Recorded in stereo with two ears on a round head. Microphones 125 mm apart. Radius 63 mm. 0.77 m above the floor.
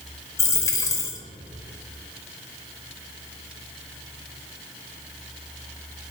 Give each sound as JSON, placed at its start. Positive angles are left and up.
{"t": 0.4, "sound": "a dropped coin", "side_deg": 25, "distance_m": 0.7}